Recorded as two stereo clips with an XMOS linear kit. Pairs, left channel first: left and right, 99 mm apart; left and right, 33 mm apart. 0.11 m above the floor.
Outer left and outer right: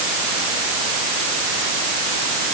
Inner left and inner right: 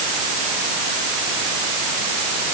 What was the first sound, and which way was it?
Only background noise.